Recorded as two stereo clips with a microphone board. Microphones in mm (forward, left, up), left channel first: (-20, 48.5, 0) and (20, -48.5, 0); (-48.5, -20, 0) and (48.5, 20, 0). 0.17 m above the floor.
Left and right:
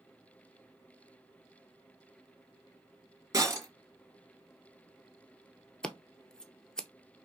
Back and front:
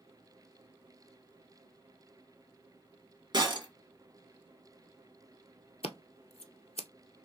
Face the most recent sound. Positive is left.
turn(degrees=-165)